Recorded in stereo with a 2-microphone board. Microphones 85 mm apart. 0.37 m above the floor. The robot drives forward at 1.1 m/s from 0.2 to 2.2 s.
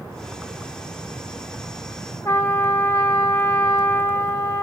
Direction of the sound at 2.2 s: 40° left (ahead or behind).